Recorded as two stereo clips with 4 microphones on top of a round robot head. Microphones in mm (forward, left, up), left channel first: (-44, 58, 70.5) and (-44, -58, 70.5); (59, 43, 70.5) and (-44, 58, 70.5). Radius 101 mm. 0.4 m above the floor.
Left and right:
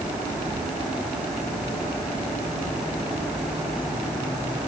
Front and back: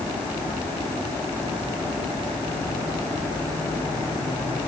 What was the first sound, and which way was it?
Only background noise.